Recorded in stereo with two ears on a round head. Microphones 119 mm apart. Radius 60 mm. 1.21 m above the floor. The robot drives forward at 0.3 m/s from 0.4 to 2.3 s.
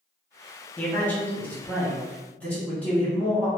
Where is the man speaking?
15° left (ahead or behind), 1.2 m; by 3.5 s 10° left (ahead or behind), 1.6 m.